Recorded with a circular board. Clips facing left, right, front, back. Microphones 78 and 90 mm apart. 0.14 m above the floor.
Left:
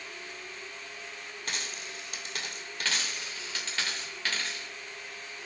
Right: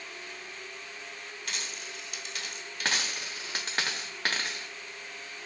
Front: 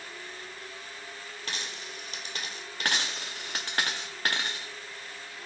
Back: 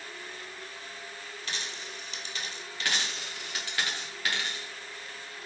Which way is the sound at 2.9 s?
45° right.